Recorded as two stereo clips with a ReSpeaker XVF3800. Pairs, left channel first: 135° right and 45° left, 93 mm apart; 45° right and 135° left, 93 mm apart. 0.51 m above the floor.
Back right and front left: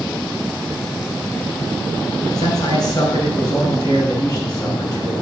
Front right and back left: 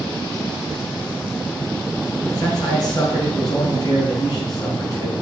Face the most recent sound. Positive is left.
turn(degrees=-90)